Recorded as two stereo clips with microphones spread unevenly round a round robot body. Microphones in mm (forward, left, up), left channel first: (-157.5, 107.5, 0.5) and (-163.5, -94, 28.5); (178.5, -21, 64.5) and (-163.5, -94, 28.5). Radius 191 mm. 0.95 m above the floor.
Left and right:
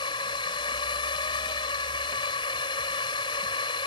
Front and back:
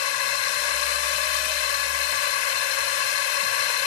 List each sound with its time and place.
0.0 s a drone: 10° left